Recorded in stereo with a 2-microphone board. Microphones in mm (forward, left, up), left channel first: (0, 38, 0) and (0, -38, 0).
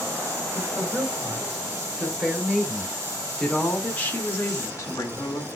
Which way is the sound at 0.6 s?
15° right (ahead or behind).